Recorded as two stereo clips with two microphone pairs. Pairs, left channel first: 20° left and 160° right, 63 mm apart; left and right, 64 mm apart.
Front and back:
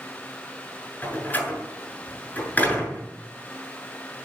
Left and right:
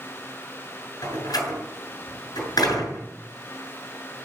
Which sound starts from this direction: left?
A door slam, at 1.0 s.